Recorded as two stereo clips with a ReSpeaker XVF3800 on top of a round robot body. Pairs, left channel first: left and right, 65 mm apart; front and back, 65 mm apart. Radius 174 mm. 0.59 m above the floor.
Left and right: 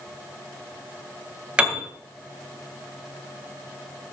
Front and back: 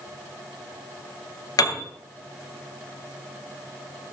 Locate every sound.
1.6 s a piano: 20° right, 2.5 m